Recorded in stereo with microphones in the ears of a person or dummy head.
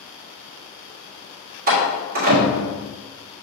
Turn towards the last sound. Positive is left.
turn(degrees=-45)  # may be behind; listen again after turning